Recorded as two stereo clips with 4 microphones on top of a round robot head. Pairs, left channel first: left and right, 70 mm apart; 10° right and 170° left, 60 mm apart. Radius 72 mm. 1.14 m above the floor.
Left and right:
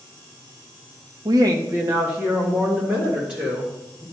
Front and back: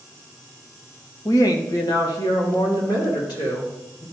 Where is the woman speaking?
55° right, 0.7 m; by 4.0 s 15° right, 3.5 m.